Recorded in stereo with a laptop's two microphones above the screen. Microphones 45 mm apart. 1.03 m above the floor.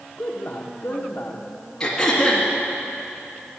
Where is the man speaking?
50° left (ahead or behind), 0.9 m.